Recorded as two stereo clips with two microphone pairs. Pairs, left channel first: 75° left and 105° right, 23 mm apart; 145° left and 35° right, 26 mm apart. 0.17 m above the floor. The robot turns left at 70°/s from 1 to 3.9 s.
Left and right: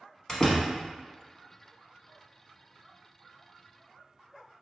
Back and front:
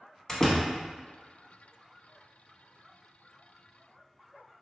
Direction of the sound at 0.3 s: 105° left.